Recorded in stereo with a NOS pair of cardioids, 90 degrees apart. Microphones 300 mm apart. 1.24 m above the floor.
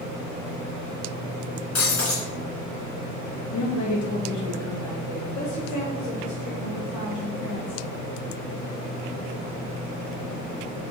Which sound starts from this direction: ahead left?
Breaking glass, at 1.8 s.